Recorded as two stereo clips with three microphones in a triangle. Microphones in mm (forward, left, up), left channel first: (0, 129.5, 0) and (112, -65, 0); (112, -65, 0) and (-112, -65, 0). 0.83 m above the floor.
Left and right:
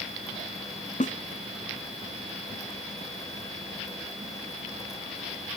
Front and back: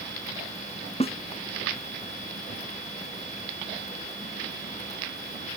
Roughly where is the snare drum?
Ahead left.